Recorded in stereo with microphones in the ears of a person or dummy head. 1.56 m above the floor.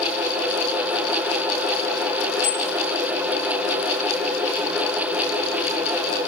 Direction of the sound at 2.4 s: 40° left (ahead or behind).